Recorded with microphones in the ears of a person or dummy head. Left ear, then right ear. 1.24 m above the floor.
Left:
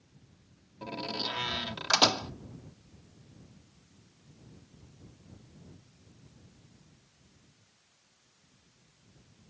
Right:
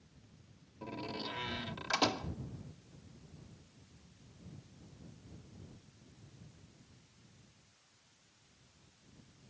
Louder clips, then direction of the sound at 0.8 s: Left 7 dB; 30° left (ahead or behind).